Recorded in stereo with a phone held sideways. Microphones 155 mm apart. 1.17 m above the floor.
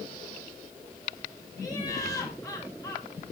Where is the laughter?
20° left (ahead or behind), 6.5 m.